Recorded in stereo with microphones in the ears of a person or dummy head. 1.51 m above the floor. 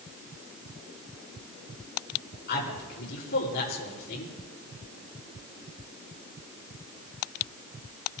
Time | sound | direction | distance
2.5 | a man speaking | 60° left (ahead or behind) | 5 m